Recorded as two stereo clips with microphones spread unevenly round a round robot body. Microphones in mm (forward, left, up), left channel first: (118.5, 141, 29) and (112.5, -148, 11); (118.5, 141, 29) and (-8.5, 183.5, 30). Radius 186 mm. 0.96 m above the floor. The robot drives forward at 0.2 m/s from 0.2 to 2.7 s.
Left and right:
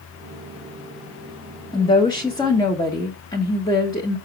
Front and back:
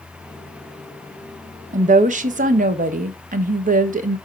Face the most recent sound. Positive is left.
turn(degrees=170)